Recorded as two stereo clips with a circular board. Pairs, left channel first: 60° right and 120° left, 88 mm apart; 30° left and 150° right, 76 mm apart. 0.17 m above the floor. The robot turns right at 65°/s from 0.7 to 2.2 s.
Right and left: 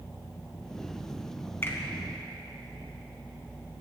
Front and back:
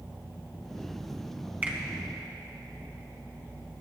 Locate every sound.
1.6 s a finger snap: 100° right, 1.6 m; by 1.8 s 90° right, 1.6 m